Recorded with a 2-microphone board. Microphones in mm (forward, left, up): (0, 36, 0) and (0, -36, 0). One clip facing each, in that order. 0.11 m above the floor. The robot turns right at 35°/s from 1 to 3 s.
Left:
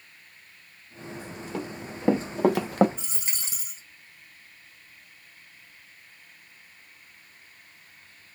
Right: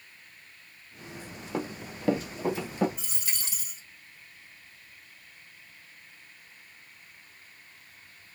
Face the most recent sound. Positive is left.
turn(degrees=25)  # may be behind; listen again after turning